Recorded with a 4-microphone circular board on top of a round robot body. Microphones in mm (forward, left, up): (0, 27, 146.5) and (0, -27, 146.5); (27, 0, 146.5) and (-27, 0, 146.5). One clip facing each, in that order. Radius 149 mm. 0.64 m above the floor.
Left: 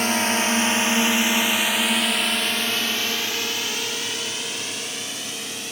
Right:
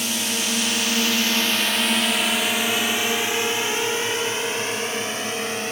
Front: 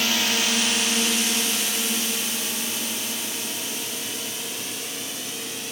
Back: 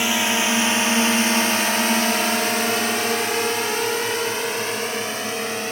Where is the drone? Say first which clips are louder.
Left 5 dB, back 4 dB; 115° left; by 5.7 s 140° right.